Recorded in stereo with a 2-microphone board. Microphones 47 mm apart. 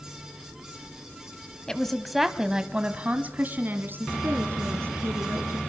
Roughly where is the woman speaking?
Centre.